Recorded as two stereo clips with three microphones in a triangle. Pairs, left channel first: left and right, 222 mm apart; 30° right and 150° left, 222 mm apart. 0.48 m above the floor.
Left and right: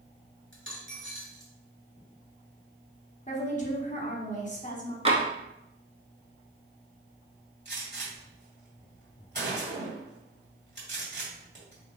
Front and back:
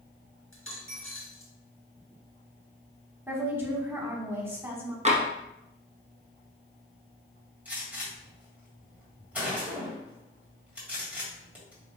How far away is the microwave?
I don't hear a microwave.